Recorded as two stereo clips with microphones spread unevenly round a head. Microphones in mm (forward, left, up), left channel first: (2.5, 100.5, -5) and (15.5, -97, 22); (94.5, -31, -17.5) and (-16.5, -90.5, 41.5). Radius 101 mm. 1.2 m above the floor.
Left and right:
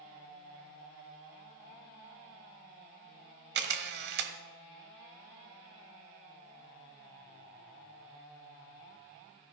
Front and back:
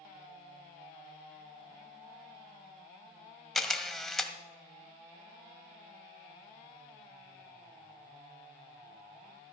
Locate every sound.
3.5 s a camera shutter: 80° right, 1.6 m